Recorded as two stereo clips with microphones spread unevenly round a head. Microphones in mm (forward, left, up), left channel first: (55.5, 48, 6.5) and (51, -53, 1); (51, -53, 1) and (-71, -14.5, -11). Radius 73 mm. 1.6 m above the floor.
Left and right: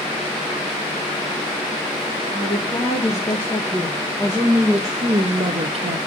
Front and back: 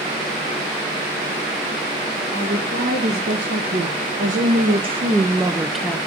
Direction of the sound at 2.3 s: 150° left.